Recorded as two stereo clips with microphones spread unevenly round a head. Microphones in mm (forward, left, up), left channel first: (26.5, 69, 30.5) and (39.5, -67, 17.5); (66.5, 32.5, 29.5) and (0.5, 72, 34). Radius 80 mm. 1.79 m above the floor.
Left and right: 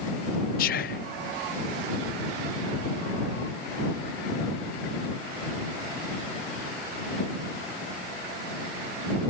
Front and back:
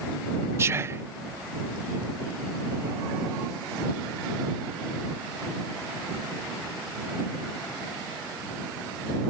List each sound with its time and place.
0.6 s whispering: 100° left